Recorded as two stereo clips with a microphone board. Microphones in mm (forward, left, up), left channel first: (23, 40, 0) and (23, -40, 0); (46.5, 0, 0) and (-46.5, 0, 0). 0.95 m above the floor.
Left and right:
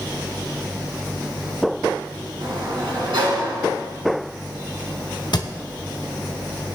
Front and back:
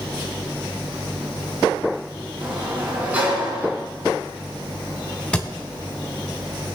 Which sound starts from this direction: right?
A sliding door, at 2.4 s.